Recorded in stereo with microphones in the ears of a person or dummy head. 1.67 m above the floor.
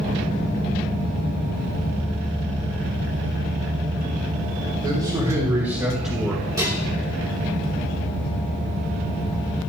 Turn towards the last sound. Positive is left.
turn(degrees=-25)  # may be behind; listen again after turning